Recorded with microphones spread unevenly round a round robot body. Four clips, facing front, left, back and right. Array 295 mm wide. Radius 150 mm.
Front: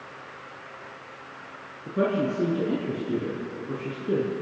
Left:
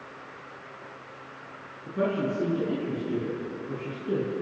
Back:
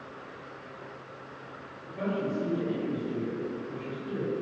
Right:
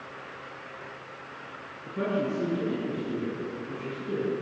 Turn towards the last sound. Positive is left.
turn(degrees=15)